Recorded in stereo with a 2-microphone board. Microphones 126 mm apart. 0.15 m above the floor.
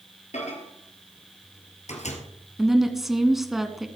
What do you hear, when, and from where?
0.3 s a microwave: 65° left (ahead or behind), 2.5 m
2.6 s a woman speaking: centre (ahead or behind), 1.2 m